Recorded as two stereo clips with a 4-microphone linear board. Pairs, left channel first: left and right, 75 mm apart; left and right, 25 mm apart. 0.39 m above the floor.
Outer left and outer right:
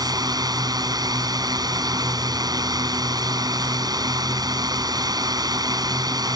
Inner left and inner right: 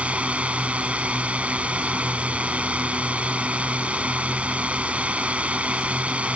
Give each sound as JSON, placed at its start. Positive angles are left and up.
{"t": 0.0, "sound": "a drone", "side_deg": -60}